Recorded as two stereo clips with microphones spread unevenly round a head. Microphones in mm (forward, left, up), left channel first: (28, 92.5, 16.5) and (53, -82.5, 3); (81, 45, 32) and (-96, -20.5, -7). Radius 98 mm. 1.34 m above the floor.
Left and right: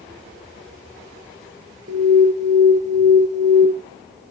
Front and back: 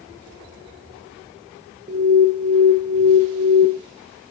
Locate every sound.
1.9 s an alarm: 125° right, 1.6 m